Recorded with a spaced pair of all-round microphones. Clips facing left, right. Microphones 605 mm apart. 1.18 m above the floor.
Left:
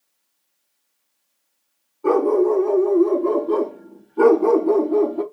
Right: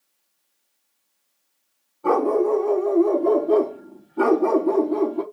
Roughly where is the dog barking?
Centre.